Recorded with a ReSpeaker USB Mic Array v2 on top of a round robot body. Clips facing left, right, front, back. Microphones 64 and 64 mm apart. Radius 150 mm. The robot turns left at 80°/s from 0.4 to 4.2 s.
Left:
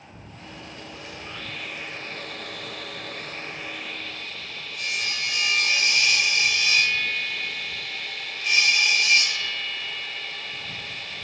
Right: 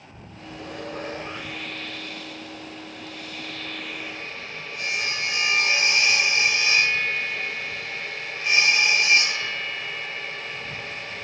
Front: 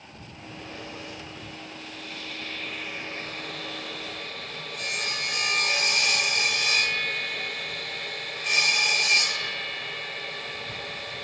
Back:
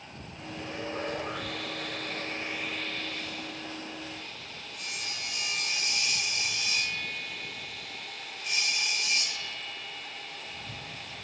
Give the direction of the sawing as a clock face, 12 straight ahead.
3 o'clock.